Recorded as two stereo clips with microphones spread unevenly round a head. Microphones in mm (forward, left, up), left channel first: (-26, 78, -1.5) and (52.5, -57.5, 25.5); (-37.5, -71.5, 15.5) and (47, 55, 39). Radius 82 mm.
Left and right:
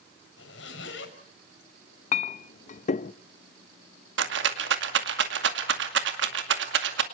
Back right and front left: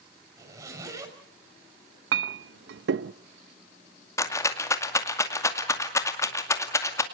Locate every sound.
0.4 s a zipper: 125° left, 5.5 m
2.1 s a clink: 75° left, 0.5 m
4.2 s a rattle: 55° right, 2 m